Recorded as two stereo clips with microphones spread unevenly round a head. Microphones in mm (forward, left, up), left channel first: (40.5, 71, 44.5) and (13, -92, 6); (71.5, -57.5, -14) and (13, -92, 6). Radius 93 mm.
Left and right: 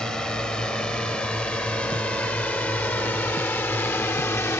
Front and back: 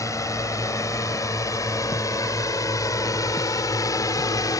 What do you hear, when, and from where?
0.0 s a drone: 5° right; by 4.6 s 5° left